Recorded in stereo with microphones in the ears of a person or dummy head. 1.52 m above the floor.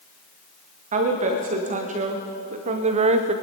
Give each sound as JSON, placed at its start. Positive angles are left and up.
{"t": 0.9, "sound": "a woman speaking", "side_deg": -40, "distance_m": 2.0}